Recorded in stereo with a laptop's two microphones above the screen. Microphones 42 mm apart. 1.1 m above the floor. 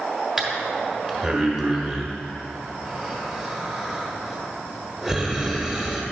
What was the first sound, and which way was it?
Breathing, 10° right (ahead or behind).